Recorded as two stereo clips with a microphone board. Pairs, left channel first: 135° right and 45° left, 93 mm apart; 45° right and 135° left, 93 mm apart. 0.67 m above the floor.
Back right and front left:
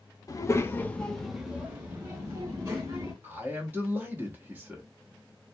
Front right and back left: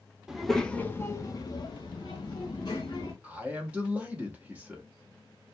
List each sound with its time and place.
0.3 s a child speaking: 145° right, 0.6 m; by 3.1 s 10° right, 1.4 m
3.2 s a man speaking: 85° left, 0.8 m